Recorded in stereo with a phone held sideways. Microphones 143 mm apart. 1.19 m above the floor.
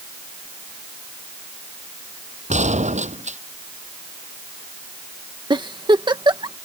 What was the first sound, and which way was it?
A gunshot, 55° right (ahead or behind).